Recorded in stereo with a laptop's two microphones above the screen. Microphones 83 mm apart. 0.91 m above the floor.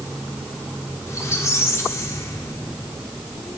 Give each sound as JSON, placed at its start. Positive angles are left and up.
{"t": 1.1, "sound": "a squeak", "side_deg": 35, "distance_m": 0.9}